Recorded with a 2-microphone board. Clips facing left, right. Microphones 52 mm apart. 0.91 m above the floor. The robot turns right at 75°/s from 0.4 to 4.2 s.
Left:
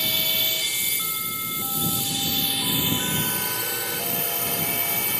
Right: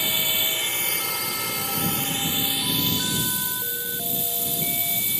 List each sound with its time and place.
0.0 s a drone: 165° right; by 5.2 s 120° left